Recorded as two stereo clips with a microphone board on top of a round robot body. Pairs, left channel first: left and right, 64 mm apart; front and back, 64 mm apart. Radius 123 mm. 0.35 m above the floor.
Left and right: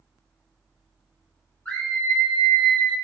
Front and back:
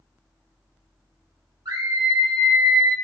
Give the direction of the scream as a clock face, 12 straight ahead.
7 o'clock.